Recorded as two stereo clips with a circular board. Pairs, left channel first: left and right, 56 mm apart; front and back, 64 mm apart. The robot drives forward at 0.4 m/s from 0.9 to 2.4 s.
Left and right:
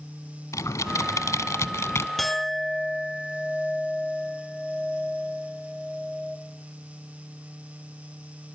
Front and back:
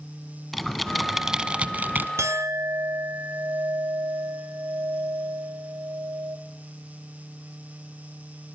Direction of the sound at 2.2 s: 175° left.